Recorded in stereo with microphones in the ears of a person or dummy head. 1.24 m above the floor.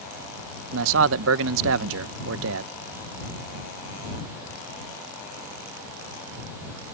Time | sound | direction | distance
0.7 | a man speaking | 70° right (ahead or behind) | ?